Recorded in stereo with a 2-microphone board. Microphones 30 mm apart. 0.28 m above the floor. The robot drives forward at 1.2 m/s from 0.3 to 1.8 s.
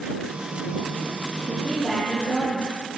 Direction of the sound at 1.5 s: 30° left (ahead or behind).